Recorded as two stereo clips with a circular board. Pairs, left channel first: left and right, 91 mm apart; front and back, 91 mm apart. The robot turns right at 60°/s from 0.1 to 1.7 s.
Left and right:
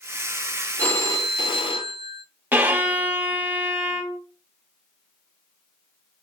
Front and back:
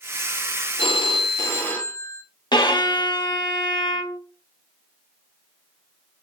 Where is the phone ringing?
20° left, 0.7 m; by 2.2 s 70° left, 0.7 m.